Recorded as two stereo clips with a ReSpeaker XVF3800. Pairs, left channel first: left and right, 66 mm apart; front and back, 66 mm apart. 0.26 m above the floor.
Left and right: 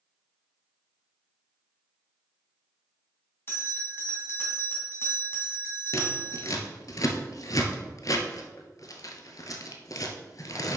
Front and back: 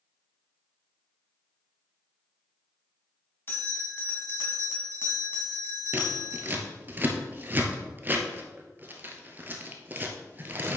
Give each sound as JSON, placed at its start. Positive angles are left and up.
{"t": 3.5, "sound": "a bell", "azimuth_deg": 45, "distance_m": 1.7}
{"t": 5.9, "sound": "scissors", "azimuth_deg": 120, "distance_m": 0.9}